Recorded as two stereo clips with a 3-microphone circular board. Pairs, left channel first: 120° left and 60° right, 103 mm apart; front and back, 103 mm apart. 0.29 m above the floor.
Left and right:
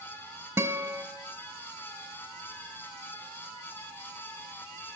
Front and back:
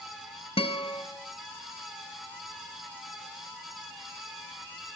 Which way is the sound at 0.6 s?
Straight ahead.